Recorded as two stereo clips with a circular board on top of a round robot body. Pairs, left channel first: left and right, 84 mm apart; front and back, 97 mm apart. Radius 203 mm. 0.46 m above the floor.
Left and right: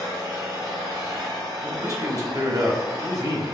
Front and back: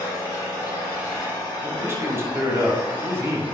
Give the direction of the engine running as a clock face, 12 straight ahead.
2 o'clock.